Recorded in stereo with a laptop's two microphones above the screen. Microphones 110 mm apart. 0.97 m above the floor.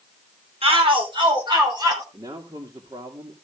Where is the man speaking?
50° right (ahead or behind), 2.5 m.